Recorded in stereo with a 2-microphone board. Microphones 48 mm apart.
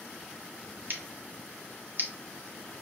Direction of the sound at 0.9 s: 45° right (ahead or behind).